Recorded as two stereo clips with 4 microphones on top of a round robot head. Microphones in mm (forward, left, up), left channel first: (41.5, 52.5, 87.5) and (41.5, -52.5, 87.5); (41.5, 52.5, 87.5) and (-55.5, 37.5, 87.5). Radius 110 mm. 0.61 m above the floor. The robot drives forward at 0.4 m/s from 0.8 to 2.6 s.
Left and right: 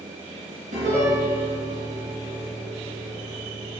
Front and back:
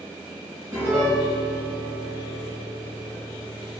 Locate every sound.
0.7 s a piano: 90° right, 3 m; by 3.8 s 105° right, 3 m